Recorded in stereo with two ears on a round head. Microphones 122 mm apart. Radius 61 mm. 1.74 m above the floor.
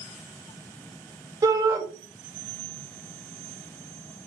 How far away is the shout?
About 2.5 m.